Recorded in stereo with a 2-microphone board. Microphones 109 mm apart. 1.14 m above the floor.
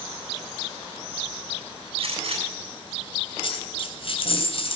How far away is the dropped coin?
About 3.5 m.